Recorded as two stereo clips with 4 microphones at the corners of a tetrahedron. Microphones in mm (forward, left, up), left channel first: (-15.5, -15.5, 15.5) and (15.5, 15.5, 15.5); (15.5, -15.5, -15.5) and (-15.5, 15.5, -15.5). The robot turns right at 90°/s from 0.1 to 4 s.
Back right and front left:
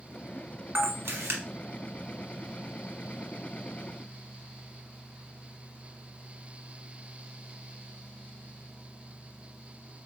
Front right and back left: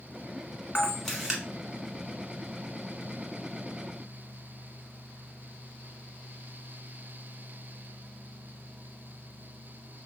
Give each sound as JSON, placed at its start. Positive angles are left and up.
{"t": 0.8, "sound": "a camera shutter", "azimuth_deg": 10, "distance_m": 1.3}